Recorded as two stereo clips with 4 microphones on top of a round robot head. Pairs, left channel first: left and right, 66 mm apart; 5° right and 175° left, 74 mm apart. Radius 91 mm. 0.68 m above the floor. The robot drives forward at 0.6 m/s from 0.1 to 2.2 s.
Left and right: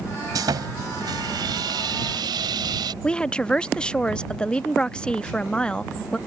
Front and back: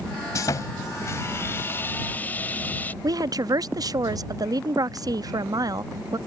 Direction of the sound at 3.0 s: 165° left.